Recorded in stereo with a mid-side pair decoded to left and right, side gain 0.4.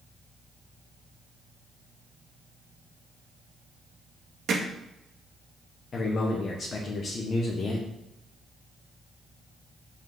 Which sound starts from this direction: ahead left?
A man speaking, at 5.9 s.